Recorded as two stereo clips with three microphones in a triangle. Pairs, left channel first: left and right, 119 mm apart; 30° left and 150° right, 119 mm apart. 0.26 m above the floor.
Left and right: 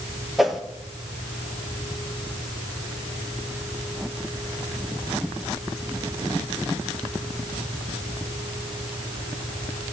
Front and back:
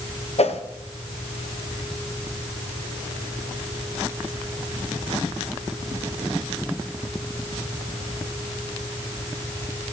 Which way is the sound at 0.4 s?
Straight ahead.